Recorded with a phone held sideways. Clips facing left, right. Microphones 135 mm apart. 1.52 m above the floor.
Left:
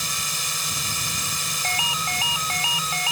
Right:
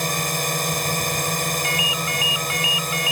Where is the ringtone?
35° left (ahead or behind).